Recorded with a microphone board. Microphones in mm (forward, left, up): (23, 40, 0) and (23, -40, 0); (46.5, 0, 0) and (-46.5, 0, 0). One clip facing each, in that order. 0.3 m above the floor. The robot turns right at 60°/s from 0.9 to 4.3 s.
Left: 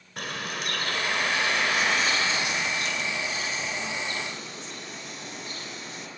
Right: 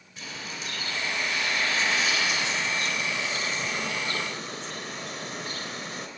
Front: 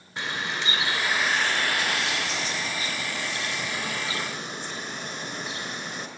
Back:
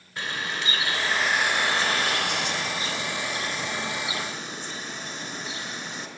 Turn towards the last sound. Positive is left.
turn(degrees=-90)